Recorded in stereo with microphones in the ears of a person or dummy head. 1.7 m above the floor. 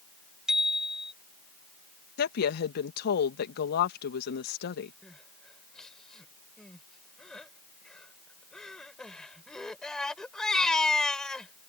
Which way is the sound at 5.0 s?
5° left (ahead or behind).